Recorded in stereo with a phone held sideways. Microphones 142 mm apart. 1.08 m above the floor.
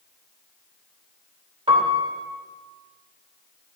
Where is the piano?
40° right (ahead or behind), 1.0 m.